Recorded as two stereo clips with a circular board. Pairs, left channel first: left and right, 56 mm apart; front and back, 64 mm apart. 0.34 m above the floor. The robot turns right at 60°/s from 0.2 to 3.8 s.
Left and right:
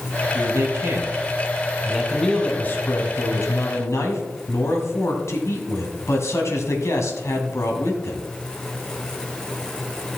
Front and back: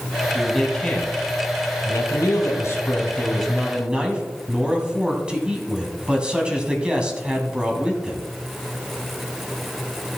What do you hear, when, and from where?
0.3 s a man speaking: 100° right, 2.5 m; by 8.2 s 110° left, 2.5 m